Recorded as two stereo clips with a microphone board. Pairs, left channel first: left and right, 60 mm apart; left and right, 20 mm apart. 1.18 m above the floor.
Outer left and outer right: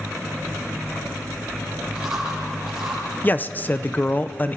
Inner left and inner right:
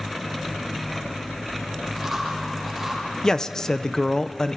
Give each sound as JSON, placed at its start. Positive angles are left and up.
{"t": 1.9, "sound": "chewing", "side_deg": -10, "distance_m": 9.5}
{"t": 3.2, "sound": "a man speaking", "side_deg": 30, "distance_m": 0.7}